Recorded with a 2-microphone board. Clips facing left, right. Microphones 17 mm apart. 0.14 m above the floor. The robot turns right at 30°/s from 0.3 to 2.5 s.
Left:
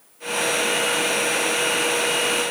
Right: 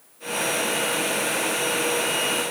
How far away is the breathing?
No breathing in this recording.